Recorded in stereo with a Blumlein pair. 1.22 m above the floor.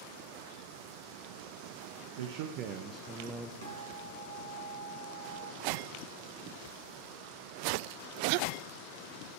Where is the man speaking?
60° right, 0.9 m; by 3.5 s straight ahead, 0.9 m.